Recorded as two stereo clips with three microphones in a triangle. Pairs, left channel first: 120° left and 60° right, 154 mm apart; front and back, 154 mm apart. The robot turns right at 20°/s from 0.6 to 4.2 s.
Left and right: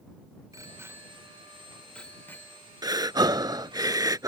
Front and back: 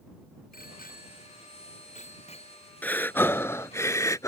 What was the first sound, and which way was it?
A bicycle bell, 10° left.